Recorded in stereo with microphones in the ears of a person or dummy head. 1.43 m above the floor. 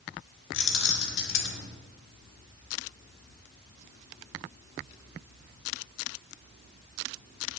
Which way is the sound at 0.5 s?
65° left (ahead or behind).